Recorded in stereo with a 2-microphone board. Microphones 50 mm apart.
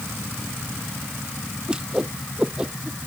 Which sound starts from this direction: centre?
A whoosh, at 1.7 s.